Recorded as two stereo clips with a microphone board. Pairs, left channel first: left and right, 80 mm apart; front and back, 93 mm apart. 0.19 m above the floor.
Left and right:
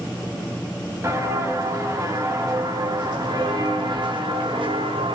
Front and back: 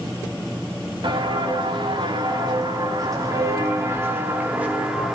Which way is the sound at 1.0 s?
145° right.